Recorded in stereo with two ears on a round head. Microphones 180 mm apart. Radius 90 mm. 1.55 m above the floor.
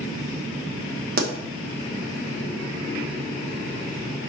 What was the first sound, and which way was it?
A pop, 50° right (ahead or behind).